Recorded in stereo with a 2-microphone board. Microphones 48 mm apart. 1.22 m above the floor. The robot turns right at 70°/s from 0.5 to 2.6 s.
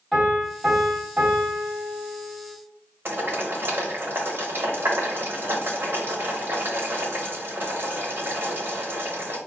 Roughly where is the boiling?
Right.